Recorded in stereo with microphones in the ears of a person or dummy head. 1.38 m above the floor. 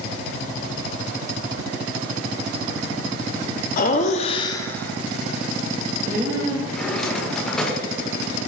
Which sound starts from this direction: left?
Laughter, at 3.8 s.